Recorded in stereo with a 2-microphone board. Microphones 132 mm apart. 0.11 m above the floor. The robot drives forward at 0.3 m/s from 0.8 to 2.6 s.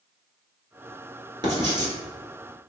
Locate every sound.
1.4 s writing: 35° right (ahead or behind), 1.4 m